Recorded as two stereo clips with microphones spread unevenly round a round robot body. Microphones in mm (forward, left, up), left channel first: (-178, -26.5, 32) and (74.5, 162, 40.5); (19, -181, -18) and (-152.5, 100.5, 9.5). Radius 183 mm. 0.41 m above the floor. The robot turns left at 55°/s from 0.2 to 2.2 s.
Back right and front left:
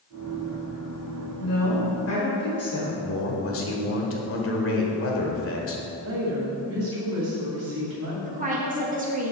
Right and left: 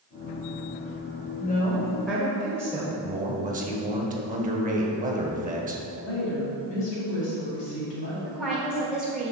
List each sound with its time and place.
1.4 s a woman speaking: 110° right, 1.7 m; by 2.9 s 155° right, 1.7 m
3.0 s a man speaking: 175° right, 1.4 m
6.0 s a woman speaking: 10° right, 2 m
8.2 s a woman speaking: 25° left, 1.2 m